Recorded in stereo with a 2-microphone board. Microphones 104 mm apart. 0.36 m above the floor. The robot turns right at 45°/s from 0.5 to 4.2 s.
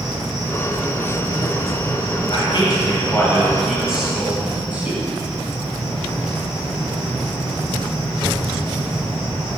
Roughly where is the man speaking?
Left.